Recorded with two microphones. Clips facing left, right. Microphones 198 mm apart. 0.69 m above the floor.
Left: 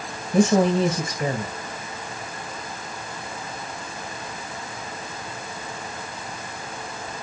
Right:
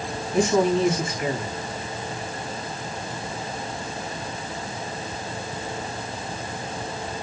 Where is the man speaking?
40° left (ahead or behind), 4.5 m.